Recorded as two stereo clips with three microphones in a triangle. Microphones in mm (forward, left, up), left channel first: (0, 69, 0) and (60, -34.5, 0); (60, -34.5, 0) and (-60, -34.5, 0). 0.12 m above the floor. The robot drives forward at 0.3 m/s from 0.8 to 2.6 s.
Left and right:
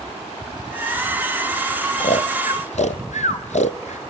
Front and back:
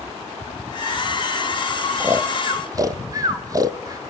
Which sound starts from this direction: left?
Snoring, at 2.0 s.